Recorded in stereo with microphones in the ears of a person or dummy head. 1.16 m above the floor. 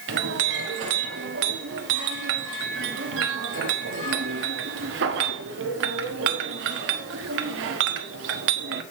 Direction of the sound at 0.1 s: 60° right (ahead or behind).